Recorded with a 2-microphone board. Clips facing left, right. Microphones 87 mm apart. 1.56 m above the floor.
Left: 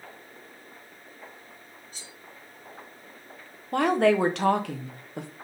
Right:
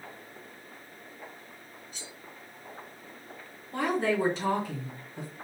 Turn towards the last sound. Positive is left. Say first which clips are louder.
# left 6 dB
turn(degrees=65)  # may be behind; listen again after turning